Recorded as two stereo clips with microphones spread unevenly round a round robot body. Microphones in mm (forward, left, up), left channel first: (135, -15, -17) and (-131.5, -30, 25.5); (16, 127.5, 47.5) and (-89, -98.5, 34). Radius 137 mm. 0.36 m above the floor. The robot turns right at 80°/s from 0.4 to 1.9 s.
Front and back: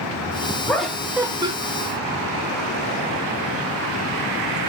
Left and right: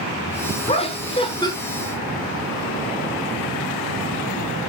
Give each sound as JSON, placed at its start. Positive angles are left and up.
{"t": 0.7, "sound": "laughter", "azimuth_deg": 50, "distance_m": 0.8}